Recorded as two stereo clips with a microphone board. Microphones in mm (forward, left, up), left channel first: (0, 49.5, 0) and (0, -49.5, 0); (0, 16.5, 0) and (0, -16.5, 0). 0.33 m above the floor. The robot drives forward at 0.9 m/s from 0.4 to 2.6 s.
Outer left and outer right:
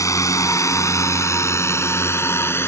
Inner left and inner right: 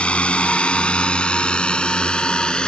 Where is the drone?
35° left (ahead or behind); by 2.7 s 25° left (ahead or behind).